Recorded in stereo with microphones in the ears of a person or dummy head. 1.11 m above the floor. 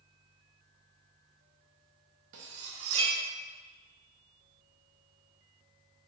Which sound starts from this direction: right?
Cutlery clinking, at 2.3 s.